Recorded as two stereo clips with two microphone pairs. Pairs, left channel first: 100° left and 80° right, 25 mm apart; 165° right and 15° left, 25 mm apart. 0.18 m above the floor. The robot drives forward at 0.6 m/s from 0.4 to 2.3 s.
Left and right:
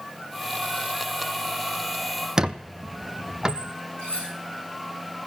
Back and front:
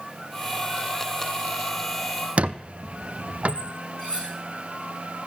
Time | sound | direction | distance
2.4 | a squeak | 15° right | 0.7 m
4.0 | cutlery clinking | 160° left | 9 m